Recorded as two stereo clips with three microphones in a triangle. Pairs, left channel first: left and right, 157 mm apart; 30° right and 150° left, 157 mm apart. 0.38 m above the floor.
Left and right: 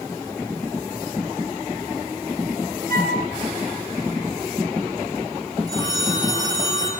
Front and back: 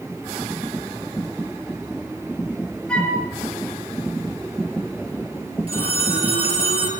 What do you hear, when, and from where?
2.9 s a flute: 115° right, 6.5 m
5.7 s a phone ringing: 155° right, 5 m